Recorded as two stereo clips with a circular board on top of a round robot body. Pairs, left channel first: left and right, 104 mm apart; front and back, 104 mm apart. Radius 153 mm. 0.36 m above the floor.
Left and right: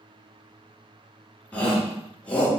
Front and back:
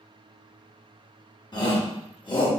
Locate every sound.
1.5 s a shout: 15° left, 1.5 m